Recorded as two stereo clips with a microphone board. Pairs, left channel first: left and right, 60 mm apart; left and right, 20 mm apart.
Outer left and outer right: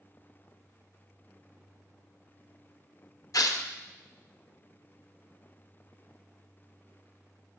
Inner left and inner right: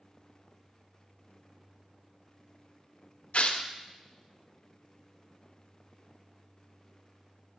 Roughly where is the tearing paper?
Left.